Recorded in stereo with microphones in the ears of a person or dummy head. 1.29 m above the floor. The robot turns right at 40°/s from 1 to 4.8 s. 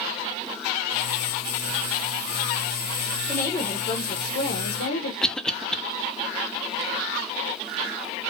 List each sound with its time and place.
3.3 s a woman speaking: 10° left, 1.3 m; by 5.1 s 70° left, 1.3 m
5.2 s a cough: 5° left (ahead or behind), 0.7 m